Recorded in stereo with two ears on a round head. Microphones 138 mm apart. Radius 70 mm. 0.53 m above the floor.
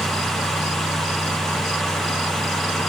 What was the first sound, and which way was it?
Only background noise.